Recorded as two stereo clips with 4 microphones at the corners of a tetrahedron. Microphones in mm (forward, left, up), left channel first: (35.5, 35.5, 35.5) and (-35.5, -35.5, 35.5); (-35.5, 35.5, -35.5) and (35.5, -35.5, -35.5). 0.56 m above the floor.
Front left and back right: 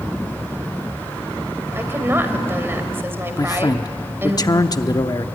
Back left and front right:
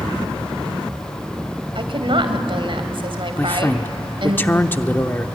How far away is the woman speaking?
About 2.5 m.